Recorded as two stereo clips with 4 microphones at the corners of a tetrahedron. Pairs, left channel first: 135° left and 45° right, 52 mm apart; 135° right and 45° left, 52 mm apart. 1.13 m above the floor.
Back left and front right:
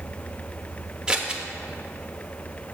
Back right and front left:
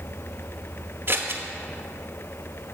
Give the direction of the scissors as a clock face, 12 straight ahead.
11 o'clock.